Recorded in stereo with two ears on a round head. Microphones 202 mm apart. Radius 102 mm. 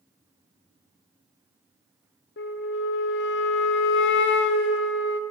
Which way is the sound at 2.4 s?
50° left (ahead or behind).